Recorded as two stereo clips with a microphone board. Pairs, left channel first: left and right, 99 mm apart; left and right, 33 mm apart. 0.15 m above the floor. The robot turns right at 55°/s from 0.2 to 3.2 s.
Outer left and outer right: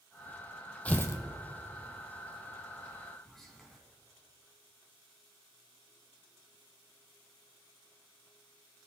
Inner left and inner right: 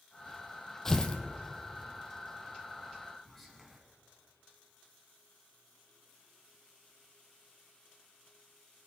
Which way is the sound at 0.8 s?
15° left (ahead or behind).